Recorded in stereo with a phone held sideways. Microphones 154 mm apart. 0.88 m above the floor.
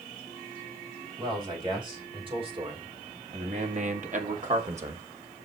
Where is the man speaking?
30° right (ahead or behind), 4.5 m; by 5.0 s 35° right (ahead or behind), 1.3 m.